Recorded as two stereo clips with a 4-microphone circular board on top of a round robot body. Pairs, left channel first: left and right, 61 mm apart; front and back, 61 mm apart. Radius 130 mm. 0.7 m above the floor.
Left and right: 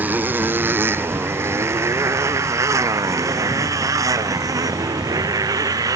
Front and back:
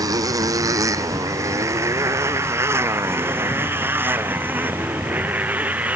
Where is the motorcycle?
155° right; by 6.0 s 115° right.